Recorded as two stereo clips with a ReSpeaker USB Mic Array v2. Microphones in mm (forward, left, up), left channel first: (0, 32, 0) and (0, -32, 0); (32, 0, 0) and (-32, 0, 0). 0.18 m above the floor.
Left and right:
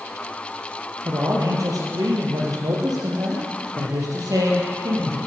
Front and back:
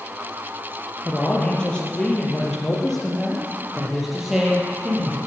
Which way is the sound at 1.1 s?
65° right.